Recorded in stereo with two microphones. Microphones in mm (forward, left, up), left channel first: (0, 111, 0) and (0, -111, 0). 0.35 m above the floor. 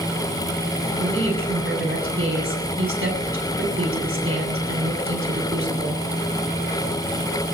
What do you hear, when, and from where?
1.0 s a woman speaking: 70° right (ahead or behind), 7 m